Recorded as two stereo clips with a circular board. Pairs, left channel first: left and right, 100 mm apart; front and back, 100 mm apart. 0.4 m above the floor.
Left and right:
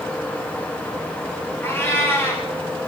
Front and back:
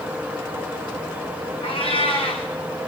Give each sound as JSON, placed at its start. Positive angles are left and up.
{"t": 1.6, "sound": "a cat meowing", "azimuth_deg": 20, "distance_m": 4.0}